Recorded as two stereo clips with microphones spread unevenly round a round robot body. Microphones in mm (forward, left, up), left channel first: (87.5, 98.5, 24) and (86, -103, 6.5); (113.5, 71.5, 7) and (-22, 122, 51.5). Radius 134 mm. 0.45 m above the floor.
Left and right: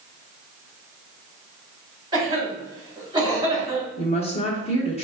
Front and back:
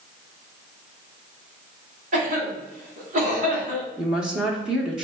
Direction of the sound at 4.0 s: 50° left.